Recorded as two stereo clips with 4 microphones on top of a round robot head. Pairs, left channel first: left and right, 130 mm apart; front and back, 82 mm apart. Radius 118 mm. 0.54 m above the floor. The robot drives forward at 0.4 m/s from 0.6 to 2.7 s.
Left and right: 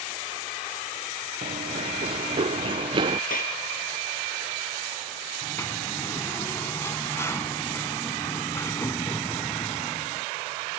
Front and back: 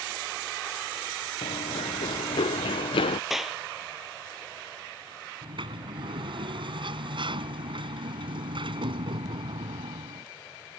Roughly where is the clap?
Left.